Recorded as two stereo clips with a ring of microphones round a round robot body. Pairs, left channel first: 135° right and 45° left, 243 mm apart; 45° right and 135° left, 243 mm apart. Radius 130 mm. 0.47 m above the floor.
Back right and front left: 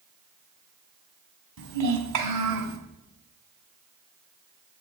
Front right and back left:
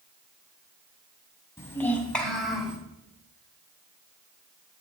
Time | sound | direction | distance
1.6 | a child speaking | 35° left | 2.5 m